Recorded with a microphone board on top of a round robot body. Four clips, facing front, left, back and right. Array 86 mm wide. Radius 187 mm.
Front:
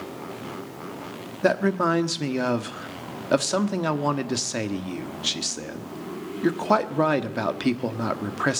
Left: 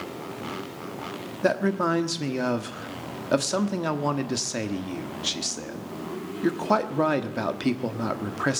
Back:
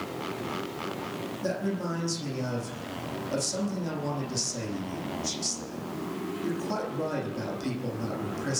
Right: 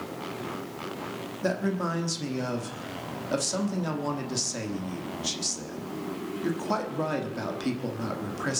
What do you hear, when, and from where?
1.4 s a man speaking: 25° left, 1.4 m